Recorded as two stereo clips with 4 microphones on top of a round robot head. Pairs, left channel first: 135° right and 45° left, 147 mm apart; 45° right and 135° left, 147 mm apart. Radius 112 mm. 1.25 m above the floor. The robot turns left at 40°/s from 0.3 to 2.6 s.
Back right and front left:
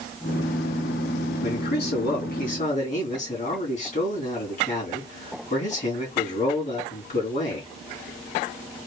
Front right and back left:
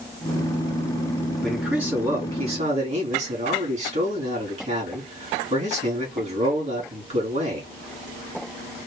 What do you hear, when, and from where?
1.4 s a man speaking: 130° right, 3 m; by 7.7 s 175° right, 3 m